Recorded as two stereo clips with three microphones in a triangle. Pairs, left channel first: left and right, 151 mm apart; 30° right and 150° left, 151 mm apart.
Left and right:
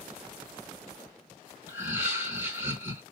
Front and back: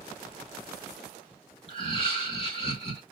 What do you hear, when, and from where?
1.7 s laughter: 25° right, 1.2 m